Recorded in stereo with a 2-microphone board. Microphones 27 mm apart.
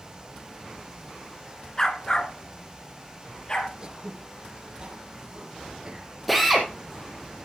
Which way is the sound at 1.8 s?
20° left (ahead or behind).